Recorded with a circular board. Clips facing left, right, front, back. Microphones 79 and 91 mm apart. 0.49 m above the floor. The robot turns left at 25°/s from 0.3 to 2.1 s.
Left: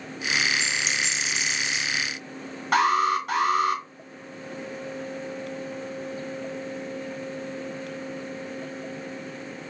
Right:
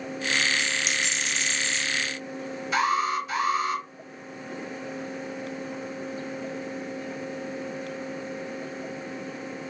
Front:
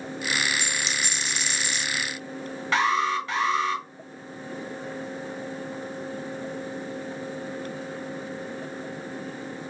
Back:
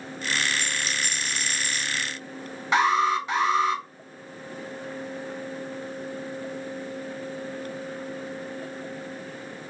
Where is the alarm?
110° left, 1.6 m.